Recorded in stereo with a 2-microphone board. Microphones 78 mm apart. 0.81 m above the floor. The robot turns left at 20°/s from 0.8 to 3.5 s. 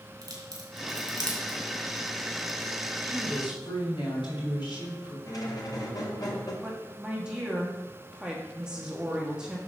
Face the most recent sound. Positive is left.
turn(degrees=-10)  # may be behind; listen again after turning